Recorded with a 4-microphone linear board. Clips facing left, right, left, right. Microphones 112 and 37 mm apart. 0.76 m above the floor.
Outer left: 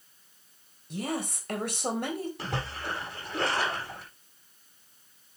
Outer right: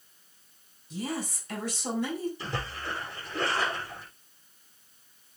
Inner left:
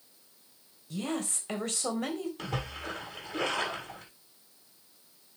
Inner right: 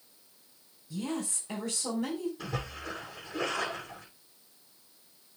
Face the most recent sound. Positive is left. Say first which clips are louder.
# outer left 1 dB, inner left 1 dB
turn(degrees=70)  # may be behind; listen again after turning